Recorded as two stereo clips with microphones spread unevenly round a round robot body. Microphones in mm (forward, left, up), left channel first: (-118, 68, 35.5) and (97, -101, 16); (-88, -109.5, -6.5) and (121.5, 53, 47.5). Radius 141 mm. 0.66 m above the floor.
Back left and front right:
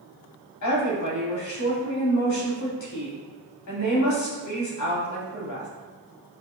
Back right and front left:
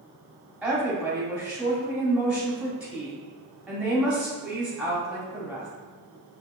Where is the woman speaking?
130° left, 1.7 m.